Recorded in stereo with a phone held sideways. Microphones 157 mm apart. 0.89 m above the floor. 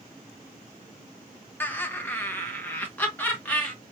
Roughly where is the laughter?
Centre.